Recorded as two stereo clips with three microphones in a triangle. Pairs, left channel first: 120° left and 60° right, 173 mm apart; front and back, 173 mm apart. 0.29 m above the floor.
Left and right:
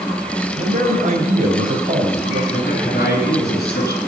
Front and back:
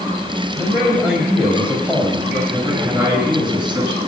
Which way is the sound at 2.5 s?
95° left.